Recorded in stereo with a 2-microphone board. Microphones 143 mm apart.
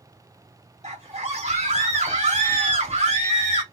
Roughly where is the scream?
Right.